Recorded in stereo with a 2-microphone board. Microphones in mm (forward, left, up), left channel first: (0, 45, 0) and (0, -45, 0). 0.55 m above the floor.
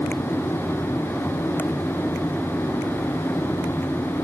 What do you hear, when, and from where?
Only background noise.